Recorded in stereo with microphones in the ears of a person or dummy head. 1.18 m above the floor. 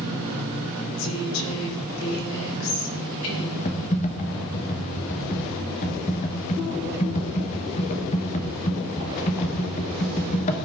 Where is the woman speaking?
85° left, 4 m.